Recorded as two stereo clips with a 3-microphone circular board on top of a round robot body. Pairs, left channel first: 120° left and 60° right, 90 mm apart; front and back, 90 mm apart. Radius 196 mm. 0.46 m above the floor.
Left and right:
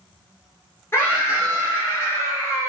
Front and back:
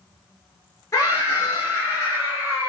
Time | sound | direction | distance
0.9 | a scream | 55° left | 8.5 m